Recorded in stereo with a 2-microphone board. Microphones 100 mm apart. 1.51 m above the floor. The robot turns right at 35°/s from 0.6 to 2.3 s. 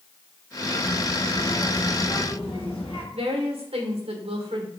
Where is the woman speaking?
70° right (ahead or behind), 1.8 m.